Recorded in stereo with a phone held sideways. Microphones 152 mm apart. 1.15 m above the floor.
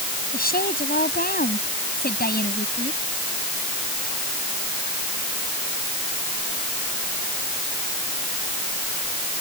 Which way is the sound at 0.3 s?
80° left.